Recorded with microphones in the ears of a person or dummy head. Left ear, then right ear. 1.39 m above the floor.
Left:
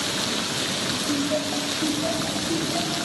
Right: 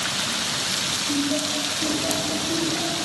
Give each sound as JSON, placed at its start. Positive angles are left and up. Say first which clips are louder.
{"t": 1.1, "sound": "laughter", "louder": "right 1 dB", "side_deg": 60, "distance_m": 4.5}